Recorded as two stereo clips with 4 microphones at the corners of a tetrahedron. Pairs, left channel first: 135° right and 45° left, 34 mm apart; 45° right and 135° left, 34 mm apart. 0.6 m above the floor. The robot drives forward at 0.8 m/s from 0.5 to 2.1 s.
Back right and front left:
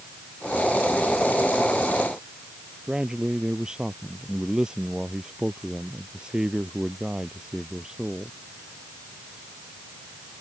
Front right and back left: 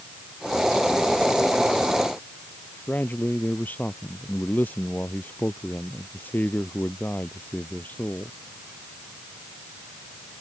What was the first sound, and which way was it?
A man speaking, 25° right.